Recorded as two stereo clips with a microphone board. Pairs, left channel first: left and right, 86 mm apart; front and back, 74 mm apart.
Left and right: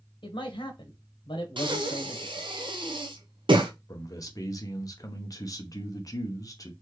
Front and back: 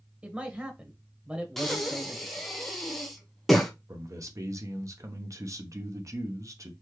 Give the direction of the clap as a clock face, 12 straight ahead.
I don't hear a clap.